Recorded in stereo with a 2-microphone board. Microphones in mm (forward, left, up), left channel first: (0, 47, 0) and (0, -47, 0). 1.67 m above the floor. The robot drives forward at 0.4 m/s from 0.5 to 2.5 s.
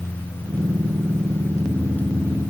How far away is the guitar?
No guitar in this recording.